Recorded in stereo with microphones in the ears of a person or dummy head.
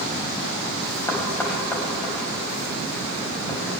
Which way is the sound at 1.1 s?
10° left (ahead or behind).